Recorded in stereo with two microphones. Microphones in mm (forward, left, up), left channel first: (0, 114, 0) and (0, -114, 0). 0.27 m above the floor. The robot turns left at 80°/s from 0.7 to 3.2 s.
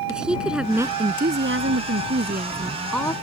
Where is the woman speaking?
5° right; by 3.1 s 160° left.